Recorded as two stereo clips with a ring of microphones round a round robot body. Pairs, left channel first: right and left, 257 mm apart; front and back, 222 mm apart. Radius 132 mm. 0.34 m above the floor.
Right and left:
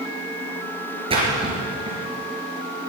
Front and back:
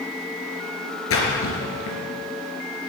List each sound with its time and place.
1.1 s a splash: 20° left, 3.5 m